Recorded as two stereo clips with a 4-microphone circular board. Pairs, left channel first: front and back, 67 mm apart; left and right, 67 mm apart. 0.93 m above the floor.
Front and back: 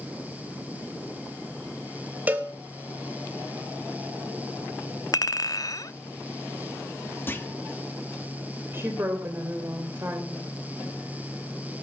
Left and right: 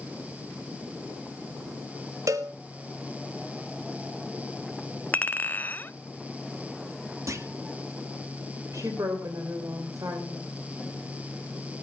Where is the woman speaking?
125° right, 3 m.